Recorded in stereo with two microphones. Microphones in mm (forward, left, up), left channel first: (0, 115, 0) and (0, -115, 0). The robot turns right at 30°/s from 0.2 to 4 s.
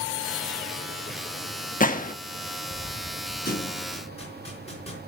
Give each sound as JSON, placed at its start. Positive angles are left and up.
{"t": 1.8, "sound": "a gunshot", "side_deg": 35, "distance_m": 0.9}
{"t": 3.5, "sound": "a thud", "side_deg": 45, "distance_m": 3.5}